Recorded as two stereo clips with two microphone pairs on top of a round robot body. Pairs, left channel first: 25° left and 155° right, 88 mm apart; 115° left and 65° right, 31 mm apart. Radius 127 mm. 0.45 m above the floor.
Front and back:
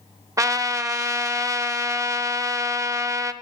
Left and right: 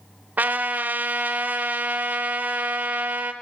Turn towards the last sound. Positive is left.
turn(degrees=-100)